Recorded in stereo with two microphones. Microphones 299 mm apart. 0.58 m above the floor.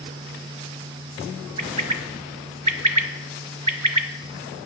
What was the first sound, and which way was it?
A bird, 75° right (ahead or behind).